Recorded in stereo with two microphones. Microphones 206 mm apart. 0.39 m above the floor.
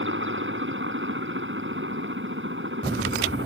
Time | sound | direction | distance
0.0 | a helicopter | 65° right (ahead or behind) | ?